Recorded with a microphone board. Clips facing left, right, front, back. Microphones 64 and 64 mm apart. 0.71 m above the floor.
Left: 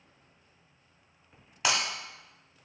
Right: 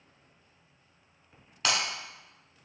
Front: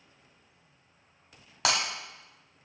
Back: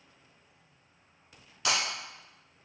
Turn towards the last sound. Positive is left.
turn(degrees=10)